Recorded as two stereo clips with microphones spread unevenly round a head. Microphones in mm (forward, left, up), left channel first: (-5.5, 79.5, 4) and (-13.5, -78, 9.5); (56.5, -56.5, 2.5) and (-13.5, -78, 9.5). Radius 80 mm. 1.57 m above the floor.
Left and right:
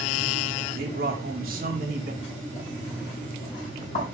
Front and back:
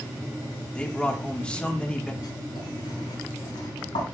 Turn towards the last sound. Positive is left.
turn(degrees=30)